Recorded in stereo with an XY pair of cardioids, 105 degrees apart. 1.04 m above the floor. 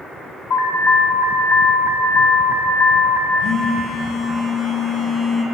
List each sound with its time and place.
0.5 s an alarm: 65° left, 1.1 m
3.4 s a phone buzzing: 70° left, 1.6 m